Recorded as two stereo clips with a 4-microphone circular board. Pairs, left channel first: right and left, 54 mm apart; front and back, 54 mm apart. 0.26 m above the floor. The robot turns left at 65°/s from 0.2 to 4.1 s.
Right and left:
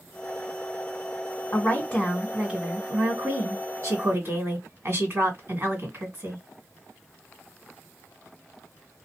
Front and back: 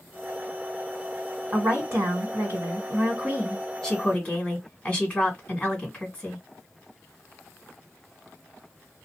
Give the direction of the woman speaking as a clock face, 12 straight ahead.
4 o'clock.